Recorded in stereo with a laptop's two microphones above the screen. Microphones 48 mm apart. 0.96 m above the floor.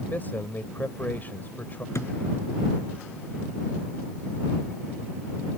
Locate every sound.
0.1 s a man speaking: 40° left (ahead or behind)
1.9 s a thud: 75° left (ahead or behind)